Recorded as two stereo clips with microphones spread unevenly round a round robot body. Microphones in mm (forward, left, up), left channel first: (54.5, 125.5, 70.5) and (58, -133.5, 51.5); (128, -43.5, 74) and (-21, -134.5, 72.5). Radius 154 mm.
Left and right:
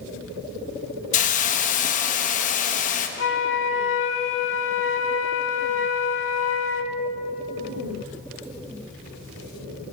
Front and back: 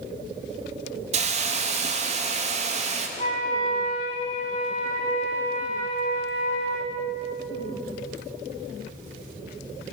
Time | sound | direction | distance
1.1 | a hiss | 155° left | 1.3 m
3.2 | a flute | 85° left | 1.0 m